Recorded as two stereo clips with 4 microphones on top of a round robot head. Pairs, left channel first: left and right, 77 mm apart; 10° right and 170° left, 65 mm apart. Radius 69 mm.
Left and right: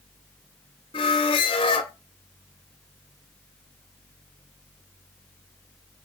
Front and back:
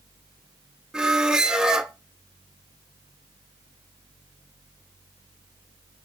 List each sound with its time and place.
0.9 s a squeak: 90° left, 0.5 m